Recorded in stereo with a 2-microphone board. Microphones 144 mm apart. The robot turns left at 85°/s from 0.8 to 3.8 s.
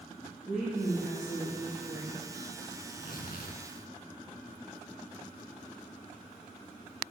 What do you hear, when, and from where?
0.5 s a woman speaking: 175° right, 4.5 m; by 2.3 s 55° left, 4.5 m
2.8 s tearing paper: 125° left, 2.5 m; by 3.6 s 60° left, 2.5 m